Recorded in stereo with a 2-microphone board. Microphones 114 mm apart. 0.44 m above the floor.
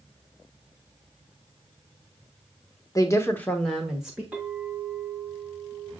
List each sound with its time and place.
3.0 s a woman speaking: 30° left (ahead or behind), 0.9 m; by 4.2 s 10° right (ahead or behind), 1.4 m
4.3 s a clink: 10° right (ahead or behind), 3 m